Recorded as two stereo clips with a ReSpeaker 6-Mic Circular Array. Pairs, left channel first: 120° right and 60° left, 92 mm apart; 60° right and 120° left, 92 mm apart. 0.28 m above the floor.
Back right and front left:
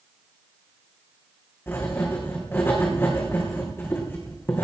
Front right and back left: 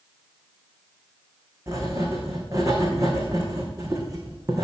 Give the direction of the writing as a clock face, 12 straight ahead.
6 o'clock.